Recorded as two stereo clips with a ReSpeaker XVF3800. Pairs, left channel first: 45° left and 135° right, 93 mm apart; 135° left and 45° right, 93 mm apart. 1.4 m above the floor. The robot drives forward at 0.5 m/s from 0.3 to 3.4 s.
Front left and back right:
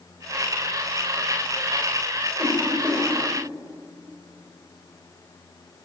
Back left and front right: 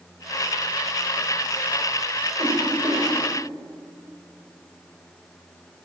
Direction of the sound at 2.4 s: 30° right.